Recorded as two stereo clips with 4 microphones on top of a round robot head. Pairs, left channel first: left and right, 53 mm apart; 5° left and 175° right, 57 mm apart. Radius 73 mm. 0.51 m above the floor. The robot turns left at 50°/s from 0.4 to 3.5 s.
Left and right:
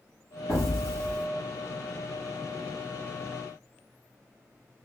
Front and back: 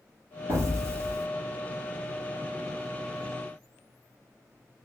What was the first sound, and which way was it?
An explosion, straight behind.